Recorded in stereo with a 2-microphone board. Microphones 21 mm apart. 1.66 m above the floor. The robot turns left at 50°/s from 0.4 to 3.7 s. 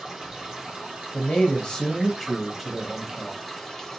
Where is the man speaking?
65° left, 0.6 m; by 3.4 s 45° right, 0.6 m.